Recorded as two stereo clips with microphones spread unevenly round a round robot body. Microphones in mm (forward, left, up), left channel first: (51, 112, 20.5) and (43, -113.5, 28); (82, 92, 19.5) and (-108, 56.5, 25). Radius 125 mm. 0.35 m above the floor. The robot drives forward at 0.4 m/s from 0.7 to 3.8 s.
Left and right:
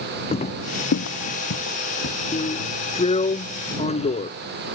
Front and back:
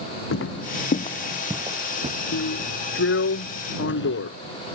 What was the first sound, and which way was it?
Footsteps, 25° left.